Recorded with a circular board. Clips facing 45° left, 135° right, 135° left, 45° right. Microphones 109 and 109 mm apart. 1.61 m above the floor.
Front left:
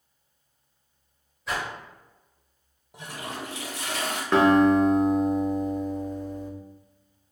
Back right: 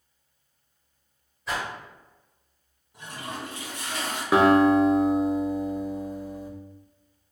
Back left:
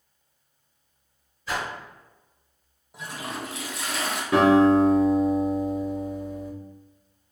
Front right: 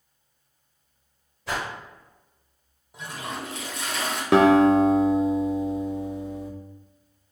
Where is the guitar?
55° right, 0.5 m.